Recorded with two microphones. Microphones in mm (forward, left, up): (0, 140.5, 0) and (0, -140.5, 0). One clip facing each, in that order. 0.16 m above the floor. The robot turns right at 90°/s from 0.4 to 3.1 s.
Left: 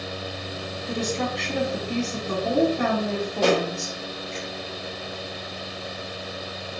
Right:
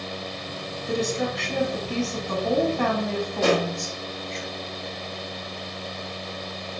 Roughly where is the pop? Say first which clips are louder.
Left 1 dB; left.